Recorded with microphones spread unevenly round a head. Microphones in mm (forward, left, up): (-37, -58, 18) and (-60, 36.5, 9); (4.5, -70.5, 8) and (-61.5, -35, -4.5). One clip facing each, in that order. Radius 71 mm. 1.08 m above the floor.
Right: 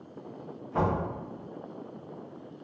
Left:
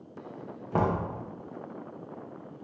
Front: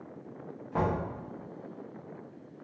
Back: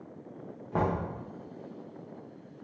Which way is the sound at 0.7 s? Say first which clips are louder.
Left 1 dB, even; 90° left.